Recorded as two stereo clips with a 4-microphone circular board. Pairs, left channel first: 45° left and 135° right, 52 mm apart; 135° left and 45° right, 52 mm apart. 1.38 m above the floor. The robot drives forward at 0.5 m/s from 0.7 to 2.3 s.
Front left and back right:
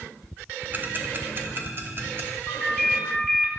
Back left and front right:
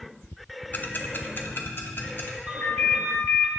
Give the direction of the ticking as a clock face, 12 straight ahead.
6 o'clock.